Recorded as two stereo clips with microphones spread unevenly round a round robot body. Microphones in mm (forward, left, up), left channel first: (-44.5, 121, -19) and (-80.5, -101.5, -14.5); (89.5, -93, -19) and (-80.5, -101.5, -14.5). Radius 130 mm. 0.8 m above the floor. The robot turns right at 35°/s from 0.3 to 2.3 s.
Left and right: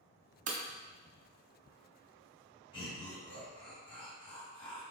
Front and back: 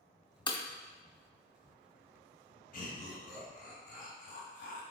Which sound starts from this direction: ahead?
Laughter, at 2.7 s.